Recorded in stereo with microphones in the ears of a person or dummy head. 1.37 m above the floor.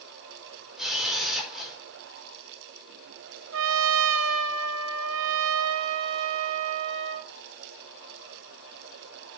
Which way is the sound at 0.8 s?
5° right (ahead or behind).